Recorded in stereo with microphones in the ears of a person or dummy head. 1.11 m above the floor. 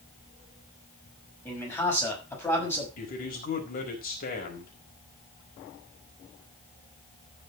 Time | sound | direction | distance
1.4 | a man speaking | 15° left (ahead or behind) | 6 m
3.0 | a man speaking | 45° left (ahead or behind) | 5 m